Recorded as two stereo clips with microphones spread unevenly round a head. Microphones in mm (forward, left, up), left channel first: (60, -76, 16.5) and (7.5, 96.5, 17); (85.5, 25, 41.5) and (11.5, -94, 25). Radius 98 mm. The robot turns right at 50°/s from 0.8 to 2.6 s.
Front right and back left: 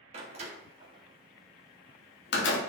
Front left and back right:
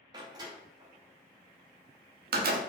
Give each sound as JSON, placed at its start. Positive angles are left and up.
{"t": 0.1, "sound": "a door slam", "azimuth_deg": 170, "distance_m": 0.8}